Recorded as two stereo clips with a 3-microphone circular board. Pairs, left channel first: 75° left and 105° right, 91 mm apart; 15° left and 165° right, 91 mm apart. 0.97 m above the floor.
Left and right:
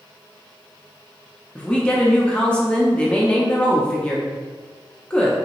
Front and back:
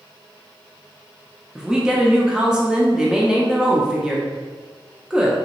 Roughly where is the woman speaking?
Behind left.